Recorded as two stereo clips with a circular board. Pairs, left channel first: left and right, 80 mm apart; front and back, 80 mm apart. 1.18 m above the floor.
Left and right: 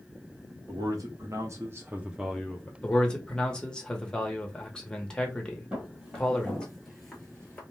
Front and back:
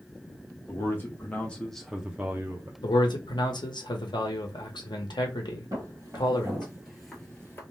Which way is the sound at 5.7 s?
155° right.